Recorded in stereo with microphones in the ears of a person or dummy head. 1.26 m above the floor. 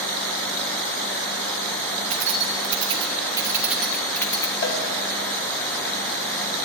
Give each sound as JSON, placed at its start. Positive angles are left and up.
{"t": 2.1, "sound": "keys jangling", "side_deg": -40, "distance_m": 1.5}
{"t": 4.6, "sound": "a cowbell", "side_deg": 55, "distance_m": 2.5}